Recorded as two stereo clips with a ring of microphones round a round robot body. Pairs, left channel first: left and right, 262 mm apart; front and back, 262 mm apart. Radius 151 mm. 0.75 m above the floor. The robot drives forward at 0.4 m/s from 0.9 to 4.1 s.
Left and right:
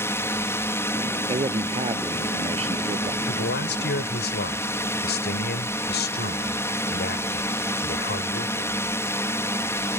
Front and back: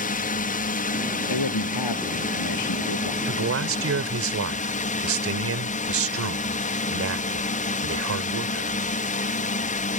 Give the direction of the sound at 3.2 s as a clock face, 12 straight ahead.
7 o'clock.